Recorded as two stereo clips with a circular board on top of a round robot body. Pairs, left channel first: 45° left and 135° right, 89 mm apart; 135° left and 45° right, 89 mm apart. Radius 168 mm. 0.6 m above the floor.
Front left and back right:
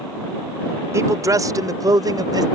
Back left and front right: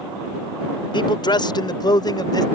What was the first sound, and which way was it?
A man speaking, 170° left.